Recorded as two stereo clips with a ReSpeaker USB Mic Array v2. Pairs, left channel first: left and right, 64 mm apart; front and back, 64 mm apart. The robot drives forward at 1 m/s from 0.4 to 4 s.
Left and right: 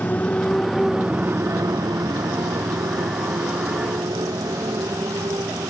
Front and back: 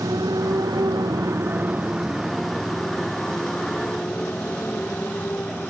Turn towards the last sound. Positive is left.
turn(degrees=-65)